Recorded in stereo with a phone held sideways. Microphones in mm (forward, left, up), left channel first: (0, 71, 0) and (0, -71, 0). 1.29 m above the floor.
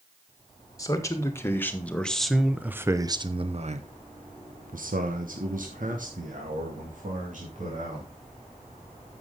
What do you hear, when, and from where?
0.8 s a man speaking: 25° left (ahead or behind), 1.7 m; by 8.1 s 60° right (ahead or behind), 3 m